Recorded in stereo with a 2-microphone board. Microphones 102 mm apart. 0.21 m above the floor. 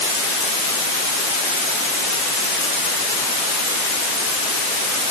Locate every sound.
Only background noise.